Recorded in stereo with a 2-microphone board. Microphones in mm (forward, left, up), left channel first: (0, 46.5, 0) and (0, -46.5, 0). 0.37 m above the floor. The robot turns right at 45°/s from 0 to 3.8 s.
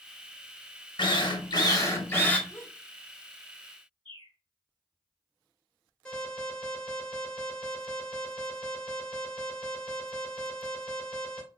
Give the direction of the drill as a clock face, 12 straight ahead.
9 o'clock.